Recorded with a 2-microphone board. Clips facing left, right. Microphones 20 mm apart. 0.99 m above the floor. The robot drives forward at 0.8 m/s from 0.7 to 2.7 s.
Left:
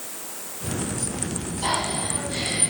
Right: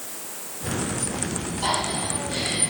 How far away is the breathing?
About 9 m.